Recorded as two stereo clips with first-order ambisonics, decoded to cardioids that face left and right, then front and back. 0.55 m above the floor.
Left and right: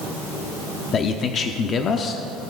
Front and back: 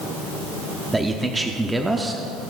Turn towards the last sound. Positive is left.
turn(degrees=105)